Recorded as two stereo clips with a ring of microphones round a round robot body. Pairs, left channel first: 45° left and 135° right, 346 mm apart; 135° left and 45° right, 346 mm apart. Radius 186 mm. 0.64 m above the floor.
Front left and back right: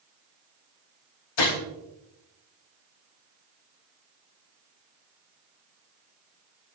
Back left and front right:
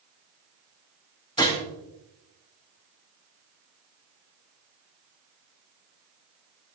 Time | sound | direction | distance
1.4 | a gunshot | 55° left | 3.5 m